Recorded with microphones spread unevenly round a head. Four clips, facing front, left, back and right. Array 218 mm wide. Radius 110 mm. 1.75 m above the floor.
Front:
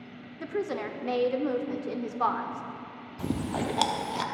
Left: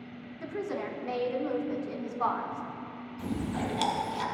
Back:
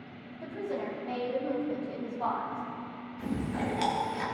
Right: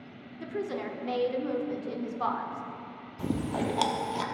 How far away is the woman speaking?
About 1.0 m.